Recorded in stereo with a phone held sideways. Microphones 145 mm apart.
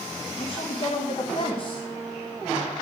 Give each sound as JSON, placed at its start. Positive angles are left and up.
{"t": 0.4, "sound": "a woman speaking", "side_deg": 45, "distance_m": 1.6}